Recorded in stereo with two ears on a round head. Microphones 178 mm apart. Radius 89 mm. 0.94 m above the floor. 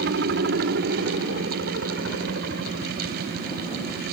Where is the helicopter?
60° right (ahead or behind); by 4.1 s 65° right (ahead or behind).